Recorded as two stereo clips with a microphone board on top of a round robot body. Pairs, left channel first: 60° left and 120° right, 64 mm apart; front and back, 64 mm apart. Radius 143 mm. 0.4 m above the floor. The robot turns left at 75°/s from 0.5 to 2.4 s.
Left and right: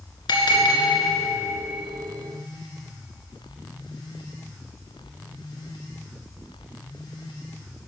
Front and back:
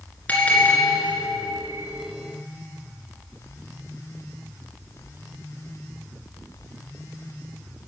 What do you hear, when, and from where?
0.3 s a bell: 70° left, 1.5 m; by 1.6 s 10° right, 1.5 m